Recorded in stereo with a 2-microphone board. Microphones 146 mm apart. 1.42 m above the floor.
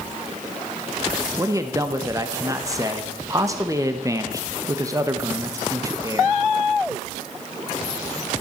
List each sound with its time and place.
1.4 s a man speaking: 20° right (ahead or behind), 1.3 m